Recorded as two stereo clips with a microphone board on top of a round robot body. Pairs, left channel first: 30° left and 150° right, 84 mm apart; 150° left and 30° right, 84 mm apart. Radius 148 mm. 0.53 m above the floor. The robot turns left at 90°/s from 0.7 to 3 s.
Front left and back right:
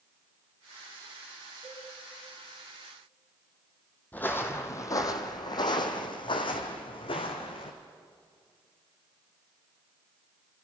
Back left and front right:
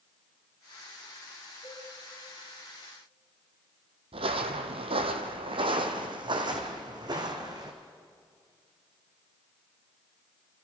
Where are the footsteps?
40° right, 1.3 m; by 7.7 s 15° left, 2.5 m.